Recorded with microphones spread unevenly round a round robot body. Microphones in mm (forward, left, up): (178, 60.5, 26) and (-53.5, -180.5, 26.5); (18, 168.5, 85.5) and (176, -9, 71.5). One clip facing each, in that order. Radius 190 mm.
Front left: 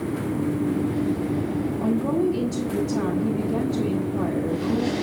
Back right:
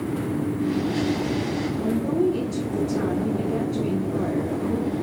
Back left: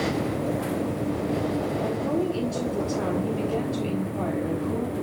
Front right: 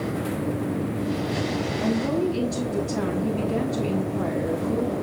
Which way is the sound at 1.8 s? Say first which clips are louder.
Even, front right 6 dB; 45° right.